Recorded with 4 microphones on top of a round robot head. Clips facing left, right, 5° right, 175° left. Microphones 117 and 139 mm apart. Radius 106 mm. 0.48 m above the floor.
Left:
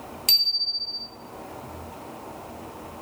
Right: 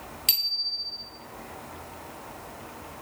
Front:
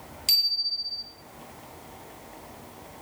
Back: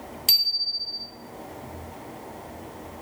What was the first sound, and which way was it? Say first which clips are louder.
A bicycle bell: left 4 dB, back 4 dB; 140° left.